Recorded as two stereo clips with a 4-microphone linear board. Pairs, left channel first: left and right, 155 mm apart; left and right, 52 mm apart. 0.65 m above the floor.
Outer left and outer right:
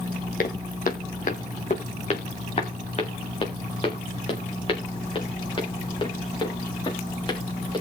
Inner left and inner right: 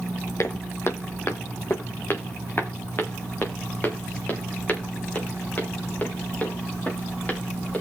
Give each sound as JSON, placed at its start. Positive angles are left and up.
{"t": 0.4, "sound": "footsteps", "side_deg": 65, "distance_m": 1.8}